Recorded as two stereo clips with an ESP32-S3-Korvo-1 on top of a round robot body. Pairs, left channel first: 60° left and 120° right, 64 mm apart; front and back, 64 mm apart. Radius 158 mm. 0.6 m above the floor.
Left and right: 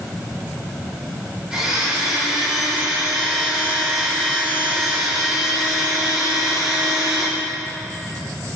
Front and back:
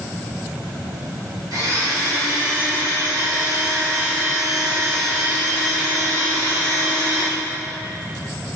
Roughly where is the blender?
Behind.